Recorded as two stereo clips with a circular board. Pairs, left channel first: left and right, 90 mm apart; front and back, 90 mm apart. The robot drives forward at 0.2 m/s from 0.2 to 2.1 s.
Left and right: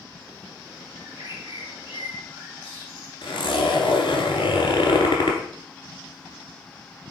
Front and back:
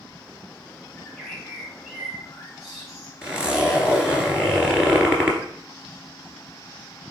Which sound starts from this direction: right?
A bird, at 1.0 s.